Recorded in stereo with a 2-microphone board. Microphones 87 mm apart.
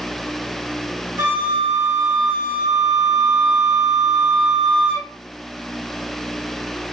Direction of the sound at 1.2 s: 35° right (ahead or behind).